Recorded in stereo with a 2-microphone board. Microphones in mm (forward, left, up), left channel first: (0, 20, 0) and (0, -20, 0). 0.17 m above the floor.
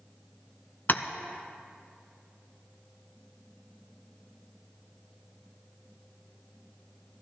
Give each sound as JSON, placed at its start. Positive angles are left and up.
{"t": 0.9, "sound": "tapping", "side_deg": 55, "distance_m": 0.6}